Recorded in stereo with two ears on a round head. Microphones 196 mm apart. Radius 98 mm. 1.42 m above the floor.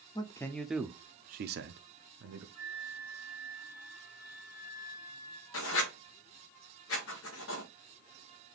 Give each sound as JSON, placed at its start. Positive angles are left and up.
{"t": 0.1, "sound": "a man speaking", "side_deg": 20, "distance_m": 0.7}
{"t": 2.5, "sound": "a flute", "side_deg": 80, "distance_m": 1.9}
{"t": 5.5, "sound": "writing", "side_deg": 65, "distance_m": 1.0}